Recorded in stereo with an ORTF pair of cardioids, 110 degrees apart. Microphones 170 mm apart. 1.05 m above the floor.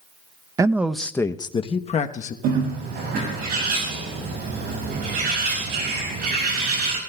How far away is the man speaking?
About 0.6 m.